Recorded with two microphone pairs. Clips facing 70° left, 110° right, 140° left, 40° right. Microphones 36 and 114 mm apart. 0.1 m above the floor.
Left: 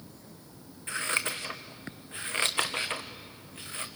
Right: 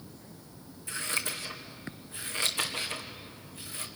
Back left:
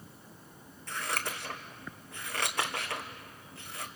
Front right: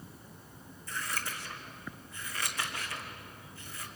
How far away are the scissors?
About 1.8 m.